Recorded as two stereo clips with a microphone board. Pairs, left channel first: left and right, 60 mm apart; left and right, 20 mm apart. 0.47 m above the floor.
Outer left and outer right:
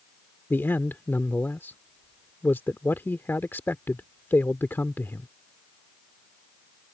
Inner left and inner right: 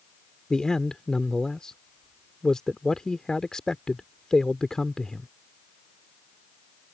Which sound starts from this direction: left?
A man speaking, at 0.5 s.